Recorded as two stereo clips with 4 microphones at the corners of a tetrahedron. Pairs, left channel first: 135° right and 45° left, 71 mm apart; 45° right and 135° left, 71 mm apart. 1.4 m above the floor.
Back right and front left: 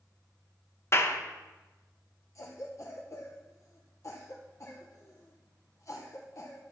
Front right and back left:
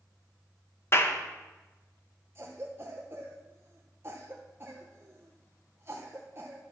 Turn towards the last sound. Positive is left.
turn(degrees=-175)